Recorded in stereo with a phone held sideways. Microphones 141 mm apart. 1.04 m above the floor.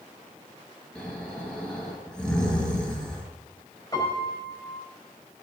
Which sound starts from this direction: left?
A piano, at 3.9 s.